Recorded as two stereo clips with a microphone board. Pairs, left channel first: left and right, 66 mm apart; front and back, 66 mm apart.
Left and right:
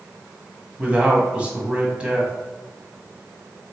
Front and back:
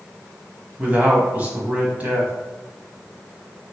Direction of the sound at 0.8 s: 145° right.